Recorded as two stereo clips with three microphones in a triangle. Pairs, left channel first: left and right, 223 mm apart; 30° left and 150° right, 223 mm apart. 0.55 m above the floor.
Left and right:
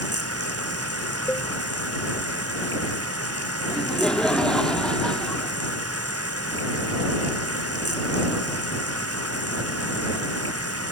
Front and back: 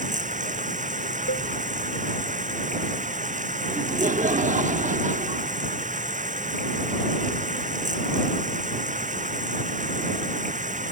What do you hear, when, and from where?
0.0 s running water: 90° right
1.3 s a cowbell: 10° left
3.7 s laughter: 175° left